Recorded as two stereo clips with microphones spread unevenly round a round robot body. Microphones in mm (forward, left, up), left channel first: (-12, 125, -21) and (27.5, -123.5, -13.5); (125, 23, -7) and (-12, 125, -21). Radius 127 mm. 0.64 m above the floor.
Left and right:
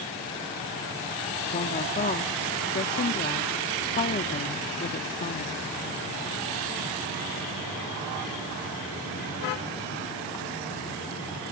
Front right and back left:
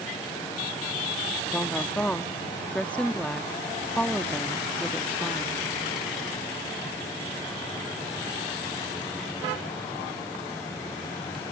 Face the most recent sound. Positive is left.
turn(degrees=50)